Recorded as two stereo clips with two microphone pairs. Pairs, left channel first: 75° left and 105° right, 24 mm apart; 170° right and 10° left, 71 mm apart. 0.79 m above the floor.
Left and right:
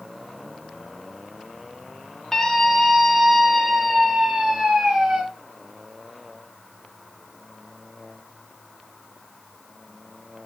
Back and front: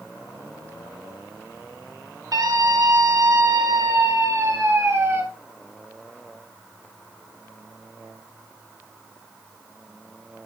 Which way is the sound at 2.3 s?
5° left.